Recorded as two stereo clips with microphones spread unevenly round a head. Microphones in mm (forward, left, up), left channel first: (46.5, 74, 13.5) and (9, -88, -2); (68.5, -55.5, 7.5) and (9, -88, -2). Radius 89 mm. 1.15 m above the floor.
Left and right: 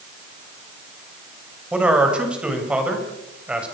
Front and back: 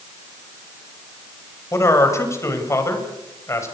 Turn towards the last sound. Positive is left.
turn(degrees=-20)